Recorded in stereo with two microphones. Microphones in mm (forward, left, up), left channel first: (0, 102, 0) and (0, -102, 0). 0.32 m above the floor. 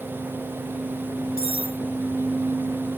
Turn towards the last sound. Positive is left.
turn(degrees=50)  # may be behind; listen again after turning